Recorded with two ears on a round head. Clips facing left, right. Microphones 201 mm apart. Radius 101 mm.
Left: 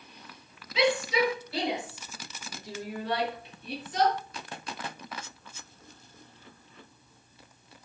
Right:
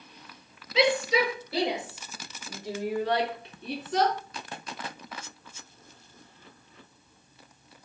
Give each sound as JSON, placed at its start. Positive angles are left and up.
{"t": 0.8, "sound": "a shout", "side_deg": -65, "distance_m": 6.5}